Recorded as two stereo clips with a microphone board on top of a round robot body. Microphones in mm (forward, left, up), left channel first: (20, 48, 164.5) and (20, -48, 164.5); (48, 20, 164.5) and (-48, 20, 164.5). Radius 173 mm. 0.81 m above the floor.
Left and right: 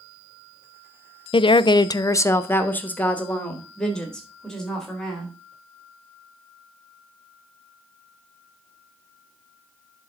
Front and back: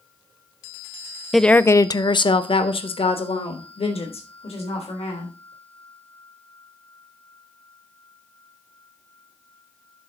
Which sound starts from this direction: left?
A woman speaking, at 1.3 s.